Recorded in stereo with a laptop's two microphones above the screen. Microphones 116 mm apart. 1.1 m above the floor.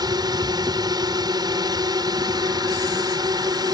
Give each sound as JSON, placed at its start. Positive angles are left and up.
{"t": 0.0, "sound": "a drone", "side_deg": -35}